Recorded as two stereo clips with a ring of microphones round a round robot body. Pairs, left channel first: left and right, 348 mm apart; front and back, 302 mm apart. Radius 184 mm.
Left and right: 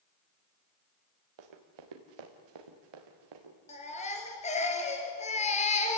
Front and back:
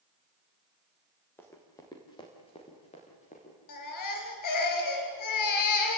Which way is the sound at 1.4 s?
85° right.